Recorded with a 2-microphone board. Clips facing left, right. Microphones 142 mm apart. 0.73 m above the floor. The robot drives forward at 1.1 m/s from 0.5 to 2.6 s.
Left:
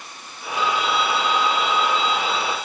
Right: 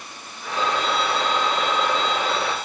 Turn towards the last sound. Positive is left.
turn(degrees=-45)  # may be behind; listen again after turning